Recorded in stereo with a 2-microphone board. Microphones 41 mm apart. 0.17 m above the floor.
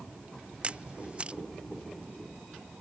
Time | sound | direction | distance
0.6 | a camera shutter | 25° right (ahead or behind) | ?